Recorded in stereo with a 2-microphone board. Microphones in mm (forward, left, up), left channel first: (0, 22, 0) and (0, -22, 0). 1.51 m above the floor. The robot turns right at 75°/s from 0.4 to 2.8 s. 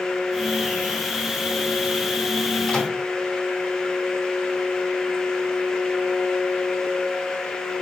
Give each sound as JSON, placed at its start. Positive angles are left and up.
{"t": 2.7, "sound": "a microwave", "side_deg": 15, "distance_m": 1.1}